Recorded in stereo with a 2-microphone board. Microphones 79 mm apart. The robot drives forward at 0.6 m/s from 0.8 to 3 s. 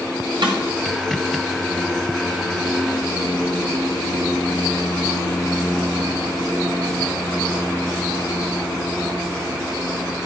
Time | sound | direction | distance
0.4 | a snare drum | 75° right (ahead or behind) | 5.5 m